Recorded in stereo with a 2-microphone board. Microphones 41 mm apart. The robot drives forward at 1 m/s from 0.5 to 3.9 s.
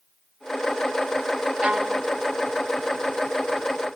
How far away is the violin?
About 0.6 m.